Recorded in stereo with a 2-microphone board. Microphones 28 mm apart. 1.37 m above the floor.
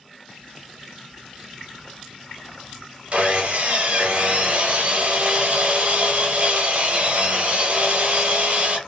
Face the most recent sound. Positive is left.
turn(degrees=-50)  # may be behind; listen again after turning